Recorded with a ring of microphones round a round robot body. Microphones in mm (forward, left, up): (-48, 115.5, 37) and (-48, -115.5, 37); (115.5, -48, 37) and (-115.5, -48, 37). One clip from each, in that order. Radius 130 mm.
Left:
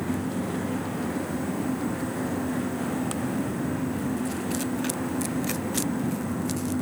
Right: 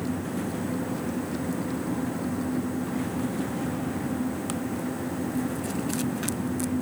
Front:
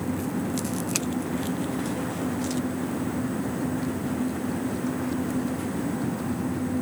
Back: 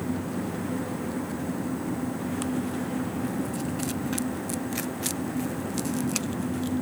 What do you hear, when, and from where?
Only background noise.